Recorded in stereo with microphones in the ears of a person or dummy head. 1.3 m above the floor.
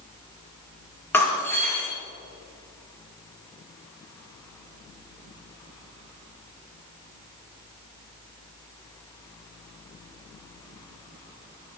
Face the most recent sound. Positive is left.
turn(degrees=10)  # may be behind; listen again after turning